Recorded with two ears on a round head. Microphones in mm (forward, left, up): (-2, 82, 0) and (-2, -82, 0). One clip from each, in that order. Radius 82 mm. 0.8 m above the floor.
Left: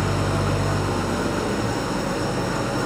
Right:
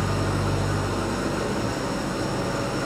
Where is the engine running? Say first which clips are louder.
Left 2 dB; centre (ahead or behind), 2 m.